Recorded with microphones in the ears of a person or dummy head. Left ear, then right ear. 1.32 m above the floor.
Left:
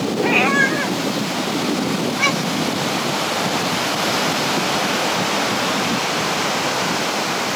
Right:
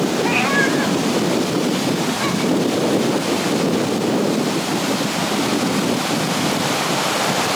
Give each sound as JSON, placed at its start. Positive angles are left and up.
{"t": 0.2, "sound": "a cat meowing", "side_deg": 10, "distance_m": 1.2}